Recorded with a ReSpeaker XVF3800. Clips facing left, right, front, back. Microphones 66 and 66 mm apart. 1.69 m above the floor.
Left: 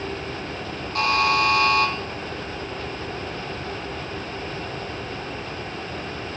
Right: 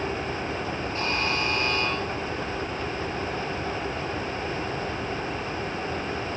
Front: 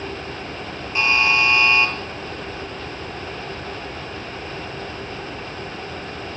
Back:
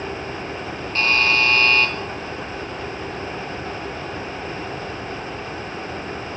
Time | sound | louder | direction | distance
0.9 | a buzzer | left 9 dB, front 1 dB | 75° left | 4 m